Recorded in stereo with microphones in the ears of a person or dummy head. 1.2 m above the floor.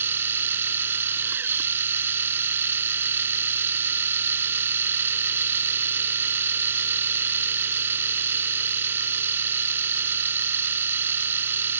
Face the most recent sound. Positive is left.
turn(degrees=-15)  # may be behind; listen again after turning